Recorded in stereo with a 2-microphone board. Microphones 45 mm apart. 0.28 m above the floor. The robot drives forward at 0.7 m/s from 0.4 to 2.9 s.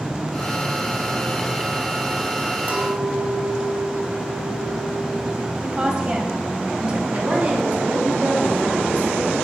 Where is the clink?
35° right (ahead or behind), 0.6 m.